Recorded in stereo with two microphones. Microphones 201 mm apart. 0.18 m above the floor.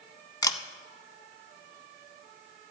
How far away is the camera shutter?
About 0.6 m.